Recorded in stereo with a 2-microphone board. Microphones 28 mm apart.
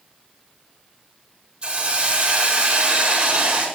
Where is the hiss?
40° right (ahead or behind), 5.5 m.